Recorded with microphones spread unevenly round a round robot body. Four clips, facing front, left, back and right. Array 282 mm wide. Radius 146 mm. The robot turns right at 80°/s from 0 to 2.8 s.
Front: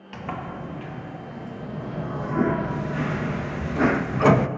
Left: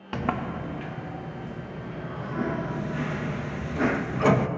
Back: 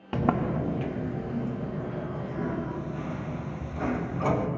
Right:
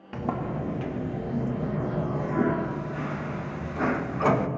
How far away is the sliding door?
About 0.6 m.